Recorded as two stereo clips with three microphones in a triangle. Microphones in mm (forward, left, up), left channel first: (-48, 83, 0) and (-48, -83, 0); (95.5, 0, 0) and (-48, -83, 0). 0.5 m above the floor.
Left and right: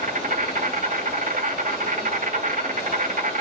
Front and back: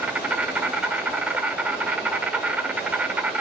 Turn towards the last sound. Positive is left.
turn(degrees=-70)